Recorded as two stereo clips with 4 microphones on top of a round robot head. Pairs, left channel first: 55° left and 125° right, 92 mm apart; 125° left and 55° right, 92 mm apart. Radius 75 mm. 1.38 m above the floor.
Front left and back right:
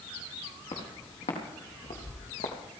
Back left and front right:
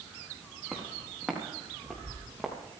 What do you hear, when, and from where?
0.7 s footsteps: 25° left, 4.5 m; by 2.5 s 35° left, 3 m